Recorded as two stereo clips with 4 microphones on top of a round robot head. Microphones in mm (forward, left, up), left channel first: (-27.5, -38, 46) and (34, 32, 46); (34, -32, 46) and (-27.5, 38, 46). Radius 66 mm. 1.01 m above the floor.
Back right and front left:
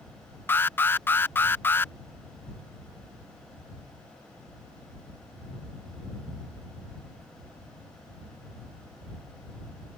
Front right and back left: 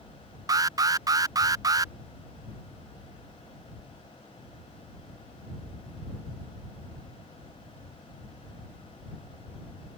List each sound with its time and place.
0.5 s an alarm: 165° left